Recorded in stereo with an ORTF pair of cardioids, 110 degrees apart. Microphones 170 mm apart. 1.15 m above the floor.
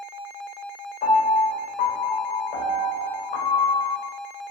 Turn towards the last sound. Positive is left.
turn(degrees=60)